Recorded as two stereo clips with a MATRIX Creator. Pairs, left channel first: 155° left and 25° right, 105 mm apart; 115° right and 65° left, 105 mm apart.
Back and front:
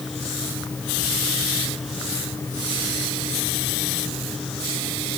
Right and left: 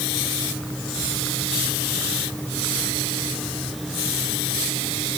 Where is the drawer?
No drawer in this recording.